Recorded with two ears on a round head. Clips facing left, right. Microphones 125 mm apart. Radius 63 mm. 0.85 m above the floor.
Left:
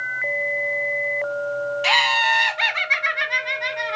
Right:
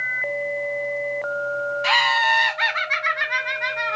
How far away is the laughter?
About 1.3 m.